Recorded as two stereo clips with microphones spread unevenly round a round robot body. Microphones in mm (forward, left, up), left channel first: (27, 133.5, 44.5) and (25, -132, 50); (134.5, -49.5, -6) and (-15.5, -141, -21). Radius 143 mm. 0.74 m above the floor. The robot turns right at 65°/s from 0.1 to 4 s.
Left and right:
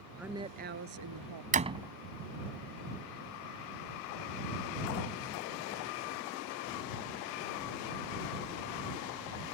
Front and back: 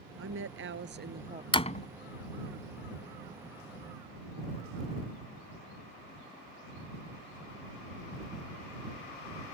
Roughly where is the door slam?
Ahead right.